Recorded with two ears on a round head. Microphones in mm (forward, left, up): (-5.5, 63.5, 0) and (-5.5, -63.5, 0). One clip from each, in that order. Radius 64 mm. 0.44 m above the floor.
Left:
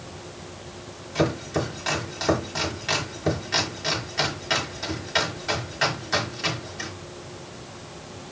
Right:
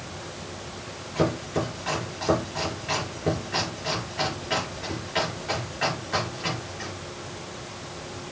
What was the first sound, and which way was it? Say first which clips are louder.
Chopping: left 1 dB; 80° left.